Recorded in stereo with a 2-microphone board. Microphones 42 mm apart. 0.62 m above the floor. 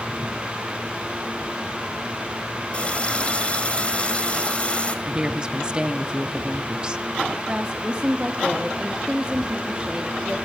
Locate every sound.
2.7 s a running tap: 30° left (ahead or behind), 1.7 m
5.0 s a woman speaking: 25° right (ahead or behind), 1.0 m
7.5 s a woman speaking: 25° right (ahead or behind), 1.3 m